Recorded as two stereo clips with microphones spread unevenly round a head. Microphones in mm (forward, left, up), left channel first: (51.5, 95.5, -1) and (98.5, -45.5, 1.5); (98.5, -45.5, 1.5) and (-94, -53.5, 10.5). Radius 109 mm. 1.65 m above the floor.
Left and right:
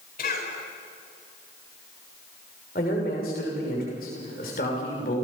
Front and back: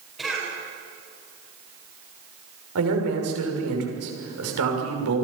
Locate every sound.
0.2 s a cough: 95° left, 9 m
2.8 s a man speaking: 165° left, 6 m